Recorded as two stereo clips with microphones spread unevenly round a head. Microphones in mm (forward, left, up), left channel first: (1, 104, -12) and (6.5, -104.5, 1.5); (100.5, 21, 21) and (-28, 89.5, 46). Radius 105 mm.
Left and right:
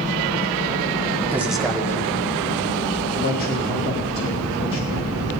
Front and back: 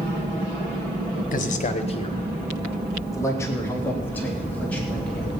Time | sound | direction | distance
1.3 | a man speaking | 10° right | 1.6 m